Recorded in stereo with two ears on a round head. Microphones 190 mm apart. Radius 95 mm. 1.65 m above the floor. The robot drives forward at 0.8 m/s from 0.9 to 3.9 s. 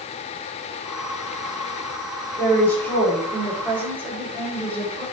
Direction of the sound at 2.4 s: 10° left (ahead or behind).